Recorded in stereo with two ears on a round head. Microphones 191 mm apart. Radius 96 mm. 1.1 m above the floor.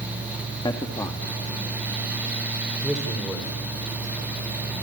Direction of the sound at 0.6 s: 20° left (ahead or behind).